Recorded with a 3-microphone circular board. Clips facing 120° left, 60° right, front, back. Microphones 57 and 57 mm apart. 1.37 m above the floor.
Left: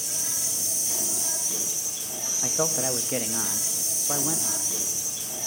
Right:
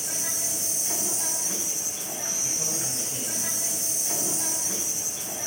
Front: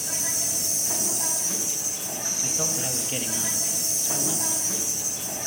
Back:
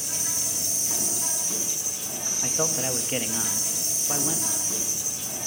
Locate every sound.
0.0 s an insect: 15° right, 6 m
2.4 s a man speaking: 110° left, 0.6 m